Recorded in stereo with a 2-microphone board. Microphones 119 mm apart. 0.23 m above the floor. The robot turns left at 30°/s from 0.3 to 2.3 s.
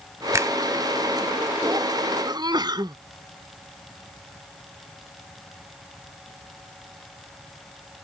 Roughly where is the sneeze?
Right.